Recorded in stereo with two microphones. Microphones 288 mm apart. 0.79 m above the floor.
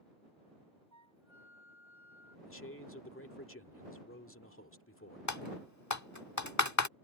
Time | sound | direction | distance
0.9 | a flute | 80° right | ?
2.5 | a man speaking | 45° left (ahead or behind) | ?
5.3 | typing on a keyboard | 70° left (ahead or behind) | ?